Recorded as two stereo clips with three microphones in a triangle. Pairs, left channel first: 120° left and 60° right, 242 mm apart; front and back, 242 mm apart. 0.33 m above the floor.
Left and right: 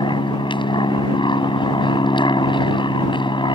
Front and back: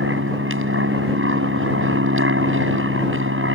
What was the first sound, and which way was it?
An aircraft, 175° right.